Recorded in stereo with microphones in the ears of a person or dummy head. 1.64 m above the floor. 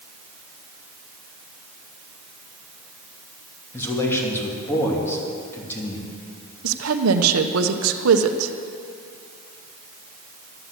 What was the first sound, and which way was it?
A man speaking, 15° left (ahead or behind).